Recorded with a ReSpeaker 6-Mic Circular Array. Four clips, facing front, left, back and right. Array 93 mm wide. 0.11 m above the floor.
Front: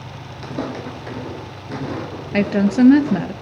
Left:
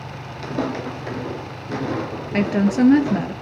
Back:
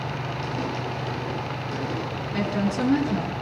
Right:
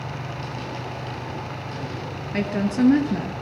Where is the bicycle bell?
I don't hear a bicycle bell.